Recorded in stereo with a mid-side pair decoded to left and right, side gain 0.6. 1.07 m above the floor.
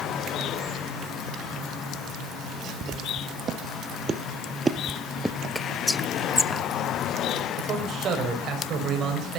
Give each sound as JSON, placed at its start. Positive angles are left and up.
{"t": 2.8, "sound": "footsteps", "azimuth_deg": -45, "distance_m": 3.5}
{"t": 5.5, "sound": "whispering", "azimuth_deg": 15, "distance_m": 0.7}
{"t": 7.6, "sound": "a man speaking", "azimuth_deg": -50, "distance_m": 6.0}